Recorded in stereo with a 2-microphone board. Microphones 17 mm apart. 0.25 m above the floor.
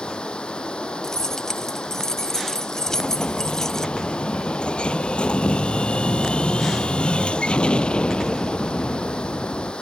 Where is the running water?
75° left (ahead or behind).